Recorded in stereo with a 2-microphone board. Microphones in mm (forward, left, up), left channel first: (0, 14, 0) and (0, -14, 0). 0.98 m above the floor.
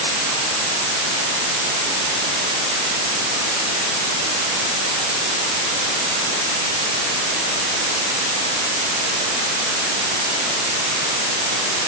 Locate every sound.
Only background noise.